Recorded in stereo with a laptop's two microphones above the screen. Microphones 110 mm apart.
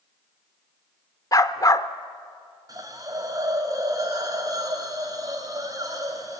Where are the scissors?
I don't hear scissors.